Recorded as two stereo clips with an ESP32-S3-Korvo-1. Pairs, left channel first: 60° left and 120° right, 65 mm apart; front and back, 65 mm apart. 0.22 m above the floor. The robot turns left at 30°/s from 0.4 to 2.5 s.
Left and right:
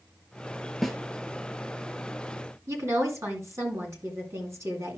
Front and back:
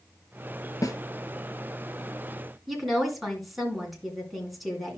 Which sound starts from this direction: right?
A woman speaking, at 2.7 s.